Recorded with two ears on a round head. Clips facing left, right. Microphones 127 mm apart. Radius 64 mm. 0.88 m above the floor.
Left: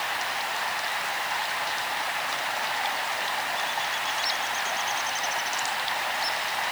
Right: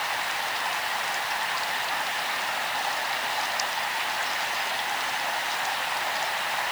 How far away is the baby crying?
No baby crying in this recording.